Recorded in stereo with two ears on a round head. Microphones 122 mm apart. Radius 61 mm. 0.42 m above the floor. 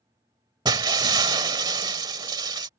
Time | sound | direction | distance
0.7 | breaking glass | 30° right (ahead or behind) | ?